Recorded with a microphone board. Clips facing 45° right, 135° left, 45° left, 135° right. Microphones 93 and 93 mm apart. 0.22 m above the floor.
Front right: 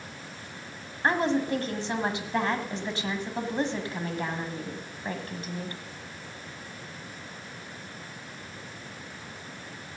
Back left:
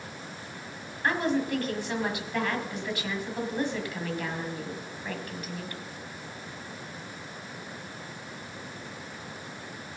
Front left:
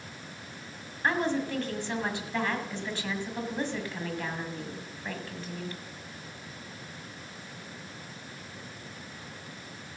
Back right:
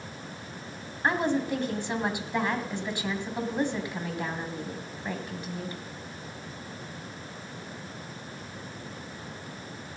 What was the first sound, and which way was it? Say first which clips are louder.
A woman speaking: front right 2 dB, back right 2 dB; 75° right.